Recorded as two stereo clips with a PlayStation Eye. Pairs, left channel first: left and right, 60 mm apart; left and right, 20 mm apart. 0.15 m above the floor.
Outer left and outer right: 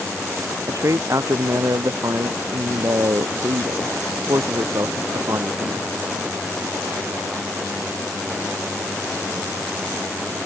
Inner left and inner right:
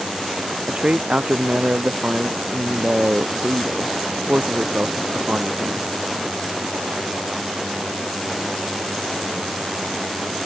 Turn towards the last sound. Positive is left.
turn(degrees=-60)  # may be behind; listen again after turning